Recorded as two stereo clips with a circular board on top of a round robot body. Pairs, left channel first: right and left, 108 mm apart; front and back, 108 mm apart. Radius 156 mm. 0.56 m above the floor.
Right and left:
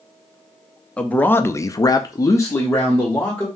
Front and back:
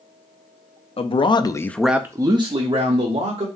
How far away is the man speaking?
About 1.0 m.